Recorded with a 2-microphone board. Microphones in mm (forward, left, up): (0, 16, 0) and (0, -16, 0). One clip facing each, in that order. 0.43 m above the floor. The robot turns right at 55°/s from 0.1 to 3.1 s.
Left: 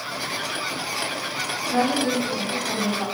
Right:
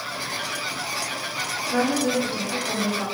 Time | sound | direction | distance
1.7 | a woman speaking | 25° right (ahead or behind) | 1.4 m